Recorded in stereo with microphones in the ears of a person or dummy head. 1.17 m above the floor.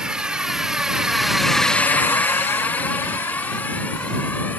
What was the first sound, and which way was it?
A drone, 5° right (ahead or behind).